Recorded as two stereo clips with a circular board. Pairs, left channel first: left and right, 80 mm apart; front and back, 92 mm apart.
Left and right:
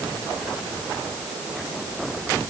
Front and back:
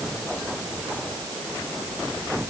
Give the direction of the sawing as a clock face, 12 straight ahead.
I don't hear sawing.